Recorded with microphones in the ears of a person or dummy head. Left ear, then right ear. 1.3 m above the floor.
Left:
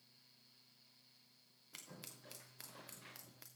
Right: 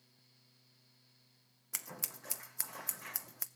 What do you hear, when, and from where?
1.7 s scissors: 45° right (ahead or behind), 0.7 m